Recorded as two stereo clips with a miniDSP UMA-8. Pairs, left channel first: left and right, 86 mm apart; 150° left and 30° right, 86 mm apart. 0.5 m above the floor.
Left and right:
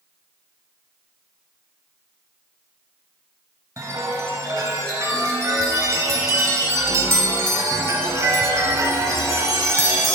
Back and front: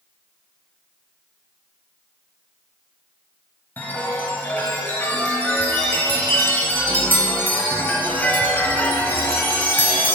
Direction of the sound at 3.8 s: 145° right.